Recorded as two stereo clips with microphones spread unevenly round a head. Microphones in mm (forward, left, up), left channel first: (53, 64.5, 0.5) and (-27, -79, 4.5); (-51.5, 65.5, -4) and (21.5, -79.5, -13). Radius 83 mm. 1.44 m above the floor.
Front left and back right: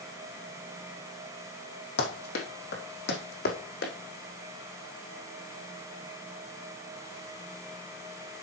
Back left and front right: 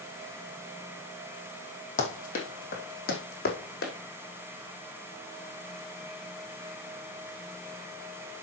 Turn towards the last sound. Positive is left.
turn(degrees=95)